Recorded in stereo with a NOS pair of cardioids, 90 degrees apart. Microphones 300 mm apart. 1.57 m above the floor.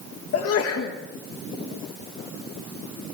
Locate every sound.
0.3 s a sneeze: 55° left, 1.8 m